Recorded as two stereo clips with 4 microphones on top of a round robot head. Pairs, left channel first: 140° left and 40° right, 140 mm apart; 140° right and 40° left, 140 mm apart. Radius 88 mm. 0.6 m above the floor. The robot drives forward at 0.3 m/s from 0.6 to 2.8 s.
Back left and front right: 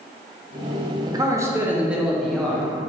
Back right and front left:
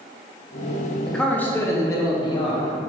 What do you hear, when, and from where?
1.1 s a man speaking: 55° right, 0.6 m; by 2.7 s 145° right, 0.7 m